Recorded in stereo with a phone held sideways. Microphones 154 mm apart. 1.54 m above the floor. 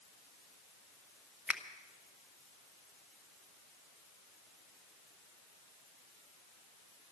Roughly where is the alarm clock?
No alarm clock in this recording.